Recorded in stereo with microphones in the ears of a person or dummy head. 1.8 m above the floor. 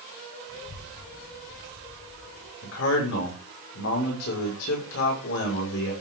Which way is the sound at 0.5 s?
60° left (ahead or behind).